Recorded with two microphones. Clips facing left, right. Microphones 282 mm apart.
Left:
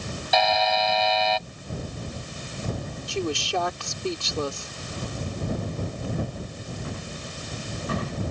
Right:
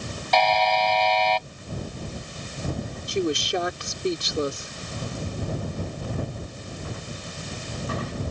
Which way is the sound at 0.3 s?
5° left (ahead or behind).